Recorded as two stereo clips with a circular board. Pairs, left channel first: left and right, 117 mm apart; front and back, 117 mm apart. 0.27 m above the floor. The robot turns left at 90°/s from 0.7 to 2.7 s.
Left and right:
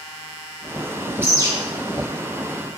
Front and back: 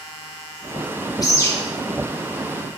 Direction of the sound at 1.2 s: 30° right.